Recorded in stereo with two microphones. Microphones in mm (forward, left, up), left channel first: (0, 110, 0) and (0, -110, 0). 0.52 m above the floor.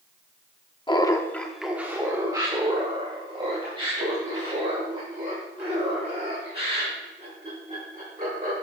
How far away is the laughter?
About 0.8 m.